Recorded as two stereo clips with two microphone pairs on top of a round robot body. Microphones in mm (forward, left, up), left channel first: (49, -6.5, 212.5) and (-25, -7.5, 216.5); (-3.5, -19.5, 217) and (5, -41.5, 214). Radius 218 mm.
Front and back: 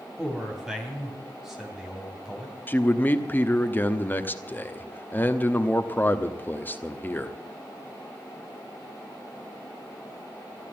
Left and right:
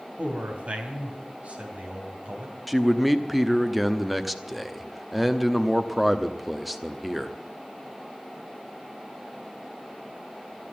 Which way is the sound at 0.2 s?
95° right.